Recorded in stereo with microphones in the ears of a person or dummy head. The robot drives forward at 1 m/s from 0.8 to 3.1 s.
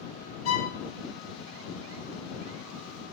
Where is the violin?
85° left, 1.8 m.